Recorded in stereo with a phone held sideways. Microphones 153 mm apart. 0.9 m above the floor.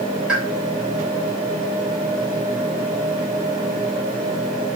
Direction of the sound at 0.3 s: 5° right (ahead or behind).